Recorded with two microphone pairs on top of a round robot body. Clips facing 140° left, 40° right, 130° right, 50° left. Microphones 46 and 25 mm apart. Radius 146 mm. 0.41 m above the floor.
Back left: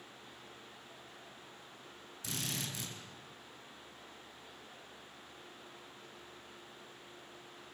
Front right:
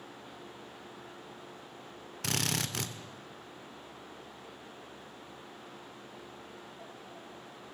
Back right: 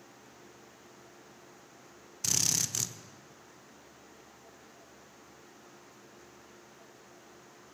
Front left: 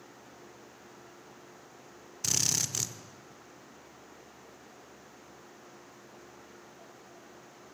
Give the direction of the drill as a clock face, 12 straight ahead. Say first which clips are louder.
Front right 7 dB, even; 1 o'clock.